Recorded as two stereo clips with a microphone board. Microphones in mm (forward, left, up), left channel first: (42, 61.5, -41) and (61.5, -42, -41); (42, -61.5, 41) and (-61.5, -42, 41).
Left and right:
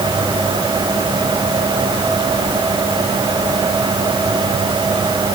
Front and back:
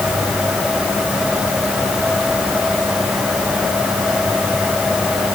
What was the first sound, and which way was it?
Only background noise.